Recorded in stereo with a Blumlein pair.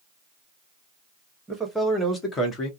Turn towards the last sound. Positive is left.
turn(degrees=35)